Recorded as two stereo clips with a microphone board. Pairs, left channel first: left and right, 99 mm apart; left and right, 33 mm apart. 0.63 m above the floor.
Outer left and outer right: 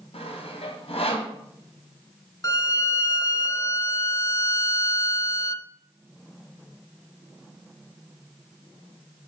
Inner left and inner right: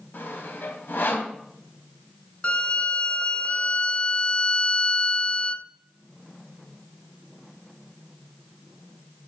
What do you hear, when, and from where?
0.1 s sawing: 75° left (ahead or behind), 2 m
2.4 s a violin: 35° left (ahead or behind), 0.6 m